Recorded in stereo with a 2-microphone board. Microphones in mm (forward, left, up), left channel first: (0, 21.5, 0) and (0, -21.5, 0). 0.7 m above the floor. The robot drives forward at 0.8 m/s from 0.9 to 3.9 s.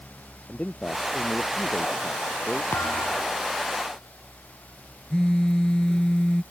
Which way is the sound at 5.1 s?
15° left (ahead or behind).